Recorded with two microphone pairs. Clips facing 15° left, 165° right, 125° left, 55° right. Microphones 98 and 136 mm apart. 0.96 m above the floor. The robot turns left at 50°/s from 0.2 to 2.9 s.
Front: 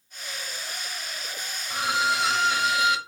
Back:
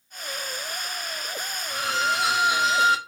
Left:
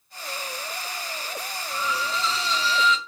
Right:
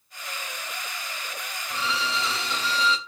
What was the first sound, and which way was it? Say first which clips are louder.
A violin: front 1 dB, left 1 dB; 55° right.